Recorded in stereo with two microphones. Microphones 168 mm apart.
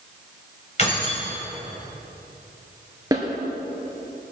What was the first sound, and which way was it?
Keys jangling, 40° left (ahead or behind).